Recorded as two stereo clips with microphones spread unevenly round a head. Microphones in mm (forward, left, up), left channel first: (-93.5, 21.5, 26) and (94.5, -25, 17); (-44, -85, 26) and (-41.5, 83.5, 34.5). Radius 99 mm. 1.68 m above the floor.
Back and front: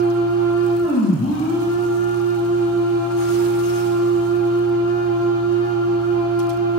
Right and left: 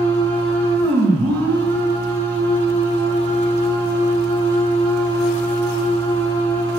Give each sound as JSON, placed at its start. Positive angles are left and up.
{"t": 0.0, "sound": "a machine running", "azimuth_deg": 105, "distance_m": 3.5}